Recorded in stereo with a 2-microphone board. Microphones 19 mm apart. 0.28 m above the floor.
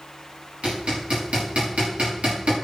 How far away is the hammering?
About 8 m.